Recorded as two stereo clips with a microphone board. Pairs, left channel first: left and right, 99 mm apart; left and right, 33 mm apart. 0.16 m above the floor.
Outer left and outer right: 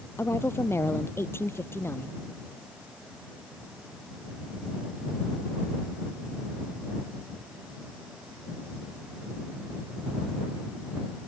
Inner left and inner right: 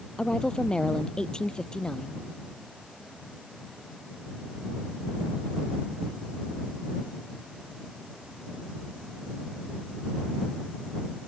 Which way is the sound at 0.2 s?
25° left (ahead or behind).